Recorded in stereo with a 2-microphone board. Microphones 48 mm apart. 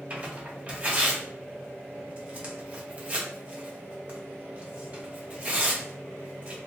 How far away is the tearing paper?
About 0.9 m.